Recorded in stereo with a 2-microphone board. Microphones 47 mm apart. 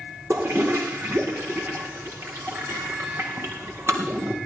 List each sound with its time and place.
0.3 s a toilet flushing: 65° right (ahead or behind), 4.5 m